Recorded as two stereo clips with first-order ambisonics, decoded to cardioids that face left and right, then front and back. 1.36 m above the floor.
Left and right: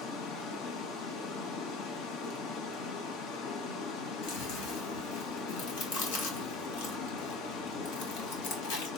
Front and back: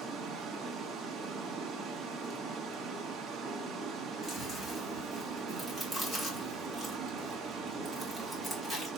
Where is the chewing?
80° left, 3 m.